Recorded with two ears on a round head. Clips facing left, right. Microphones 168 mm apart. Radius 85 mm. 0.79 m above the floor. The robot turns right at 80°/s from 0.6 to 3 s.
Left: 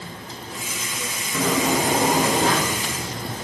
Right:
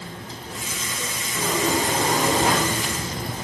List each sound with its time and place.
1.3 s a sliding door: 100° left, 3 m; by 2.6 s 155° right, 3 m